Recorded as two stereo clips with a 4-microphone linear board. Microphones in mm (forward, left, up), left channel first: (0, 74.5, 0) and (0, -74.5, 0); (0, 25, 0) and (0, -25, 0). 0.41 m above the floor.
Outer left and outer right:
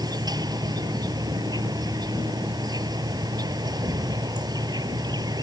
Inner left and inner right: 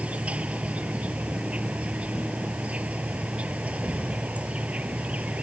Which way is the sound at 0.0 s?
25° right (ahead or behind).